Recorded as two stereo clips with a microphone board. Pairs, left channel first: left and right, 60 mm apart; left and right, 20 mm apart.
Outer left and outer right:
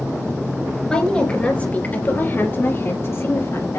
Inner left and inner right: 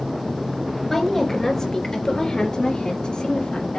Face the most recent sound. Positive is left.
turn(degrees=55)  # may be behind; listen again after turning